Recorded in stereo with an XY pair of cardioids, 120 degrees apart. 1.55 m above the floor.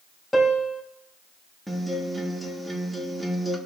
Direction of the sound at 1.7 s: 5° right.